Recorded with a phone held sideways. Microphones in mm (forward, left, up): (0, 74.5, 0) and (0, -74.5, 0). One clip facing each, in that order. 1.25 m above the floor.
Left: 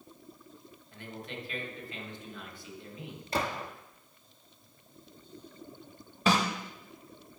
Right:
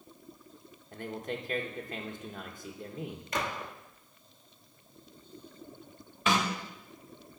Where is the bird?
I don't hear a bird.